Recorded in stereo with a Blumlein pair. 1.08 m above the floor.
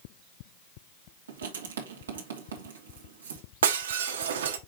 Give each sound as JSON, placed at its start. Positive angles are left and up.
{"t": 1.3, "sound": "writing", "azimuth_deg": -70, "distance_m": 1.9}
{"t": 3.6, "sound": "breaking glass", "azimuth_deg": -60, "distance_m": 1.0}